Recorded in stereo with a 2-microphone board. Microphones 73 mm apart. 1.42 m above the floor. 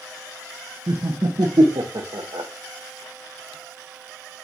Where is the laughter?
70° right (ahead or behind), 0.5 m.